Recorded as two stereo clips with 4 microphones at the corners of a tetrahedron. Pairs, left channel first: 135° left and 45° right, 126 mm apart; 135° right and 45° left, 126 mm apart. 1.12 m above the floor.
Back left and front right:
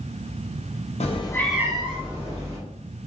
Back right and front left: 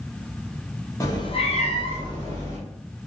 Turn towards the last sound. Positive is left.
turn(degrees=-75)